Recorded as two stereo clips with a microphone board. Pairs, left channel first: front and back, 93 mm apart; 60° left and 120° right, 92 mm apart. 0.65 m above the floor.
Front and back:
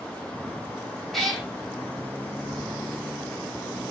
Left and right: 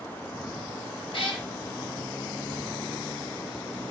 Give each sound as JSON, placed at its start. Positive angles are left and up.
{"t": 1.1, "sound": "a cat meowing", "azimuth_deg": 85, "distance_m": 0.8}